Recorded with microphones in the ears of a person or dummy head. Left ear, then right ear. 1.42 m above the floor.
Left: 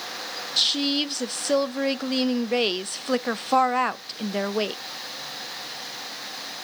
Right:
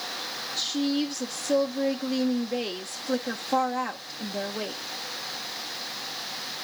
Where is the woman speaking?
50° left (ahead or behind), 0.5 m.